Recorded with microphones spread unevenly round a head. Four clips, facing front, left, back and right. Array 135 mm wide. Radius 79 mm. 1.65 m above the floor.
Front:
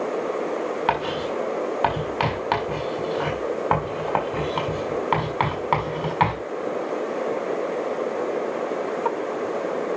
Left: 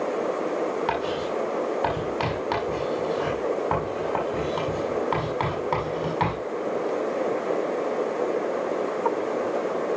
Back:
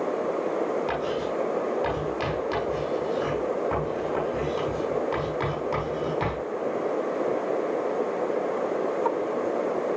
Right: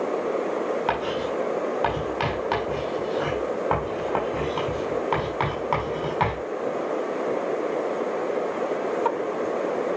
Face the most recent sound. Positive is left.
turn(degrees=-10)